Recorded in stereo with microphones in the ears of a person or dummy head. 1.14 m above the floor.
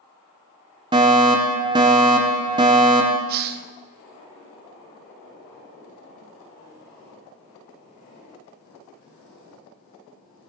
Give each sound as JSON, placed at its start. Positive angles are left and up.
{"t": 0.9, "sound": "a fire alarm", "side_deg": -20, "distance_m": 1.2}
{"t": 3.3, "sound": "a hiss", "side_deg": -50, "distance_m": 0.7}